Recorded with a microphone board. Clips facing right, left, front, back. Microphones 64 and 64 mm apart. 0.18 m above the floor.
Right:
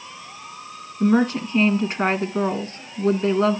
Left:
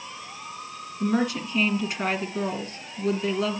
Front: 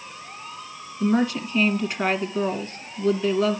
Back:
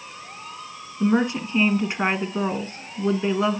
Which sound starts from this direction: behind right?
A woman speaking, at 1.0 s.